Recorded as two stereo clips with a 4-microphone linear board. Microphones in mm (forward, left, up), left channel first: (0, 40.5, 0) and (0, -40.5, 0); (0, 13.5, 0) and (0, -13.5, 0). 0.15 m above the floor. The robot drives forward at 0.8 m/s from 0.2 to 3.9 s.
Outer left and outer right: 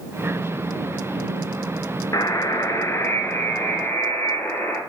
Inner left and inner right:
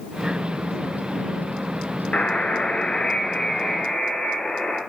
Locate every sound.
2.1 s a buzzer: 50° left (ahead or behind), 1.0 m; by 4.8 s 25° left (ahead or behind), 1.9 m